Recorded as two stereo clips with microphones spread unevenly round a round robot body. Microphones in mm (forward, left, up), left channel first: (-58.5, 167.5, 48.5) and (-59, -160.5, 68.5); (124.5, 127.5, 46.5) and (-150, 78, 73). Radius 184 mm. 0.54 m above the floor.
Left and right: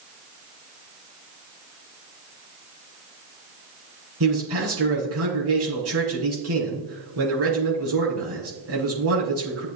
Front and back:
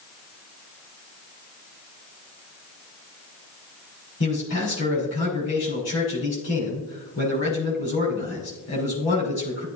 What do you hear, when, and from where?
4.2 s a man speaking: 40° right, 5.5 m